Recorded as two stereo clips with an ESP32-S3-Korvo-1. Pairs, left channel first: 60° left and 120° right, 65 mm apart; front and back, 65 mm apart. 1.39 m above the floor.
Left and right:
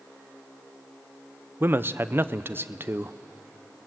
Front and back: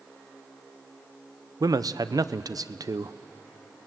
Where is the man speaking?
175° right, 0.6 m.